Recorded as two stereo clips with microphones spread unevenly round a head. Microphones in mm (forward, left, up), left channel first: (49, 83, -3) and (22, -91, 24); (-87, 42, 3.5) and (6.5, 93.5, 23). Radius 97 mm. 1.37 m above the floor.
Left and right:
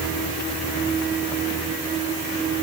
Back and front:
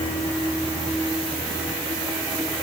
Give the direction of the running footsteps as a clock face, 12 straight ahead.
No running footsteps in this recording.